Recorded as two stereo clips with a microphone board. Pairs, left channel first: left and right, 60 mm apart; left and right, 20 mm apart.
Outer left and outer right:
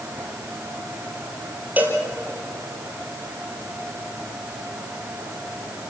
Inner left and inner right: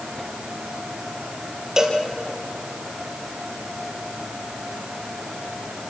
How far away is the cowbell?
About 4 m.